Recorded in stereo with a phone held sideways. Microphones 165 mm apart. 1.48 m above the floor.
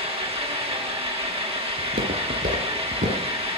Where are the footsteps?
65° right (ahead or behind), 3.5 m; by 3.2 s 50° right (ahead or behind), 2 m.